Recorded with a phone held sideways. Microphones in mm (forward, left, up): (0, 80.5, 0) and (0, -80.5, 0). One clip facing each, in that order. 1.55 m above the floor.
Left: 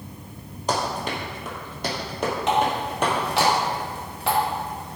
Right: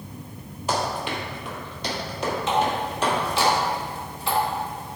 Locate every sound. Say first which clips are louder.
0.7 s running footsteps: even; 40° left (ahead or behind), 2.5 m; by 3.5 s 55° left (ahead or behind), 3 m
2.5 s a running tap: left 1 dB; 70° left (ahead or behind), 2 m